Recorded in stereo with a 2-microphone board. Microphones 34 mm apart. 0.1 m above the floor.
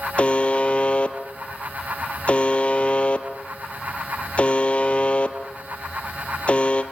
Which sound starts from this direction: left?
A buzzer, at 0.2 s.